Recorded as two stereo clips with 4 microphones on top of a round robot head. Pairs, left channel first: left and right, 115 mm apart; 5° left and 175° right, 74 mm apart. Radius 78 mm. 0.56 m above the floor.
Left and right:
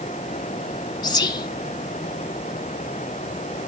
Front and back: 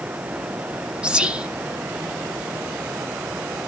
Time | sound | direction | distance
1.0 | whispering | 115° left | 1.2 m